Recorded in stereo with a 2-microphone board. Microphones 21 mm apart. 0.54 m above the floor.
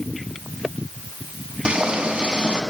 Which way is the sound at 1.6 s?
75° right (ahead or behind).